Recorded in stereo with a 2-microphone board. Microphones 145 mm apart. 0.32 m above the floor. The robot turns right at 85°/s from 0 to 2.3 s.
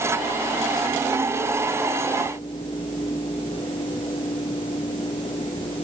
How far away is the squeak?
I don't hear a squeak.